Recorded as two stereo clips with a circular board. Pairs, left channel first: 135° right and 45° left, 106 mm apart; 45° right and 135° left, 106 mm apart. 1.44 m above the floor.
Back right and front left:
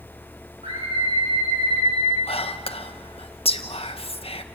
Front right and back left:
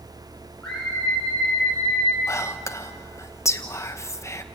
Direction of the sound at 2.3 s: 110° right.